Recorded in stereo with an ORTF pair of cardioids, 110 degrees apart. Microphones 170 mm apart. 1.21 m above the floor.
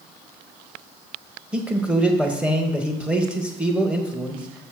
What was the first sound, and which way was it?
A man speaking, 5° right.